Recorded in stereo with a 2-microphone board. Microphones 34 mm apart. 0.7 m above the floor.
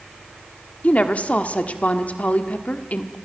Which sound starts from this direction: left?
A woman speaking, at 0.8 s.